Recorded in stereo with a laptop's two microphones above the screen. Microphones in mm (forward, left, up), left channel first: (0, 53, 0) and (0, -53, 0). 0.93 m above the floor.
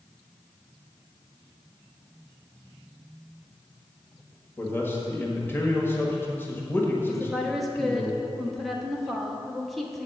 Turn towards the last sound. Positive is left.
turn(degrees=0)  # may be behind; listen again after turning